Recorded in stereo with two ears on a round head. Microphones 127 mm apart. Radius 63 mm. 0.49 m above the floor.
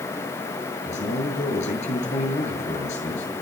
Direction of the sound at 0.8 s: 50° left (ahead or behind).